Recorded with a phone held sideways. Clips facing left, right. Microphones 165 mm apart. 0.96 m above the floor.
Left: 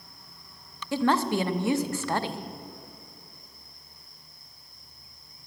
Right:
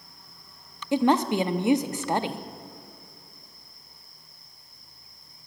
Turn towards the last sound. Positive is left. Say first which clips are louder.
# right 3 dB
turn(degrees=-20)  # may be behind; listen again after turning